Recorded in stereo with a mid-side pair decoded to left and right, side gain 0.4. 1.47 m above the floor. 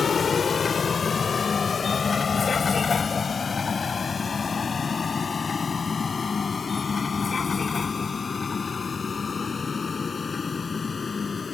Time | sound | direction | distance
0.0 | a vehicle | 45° left | ?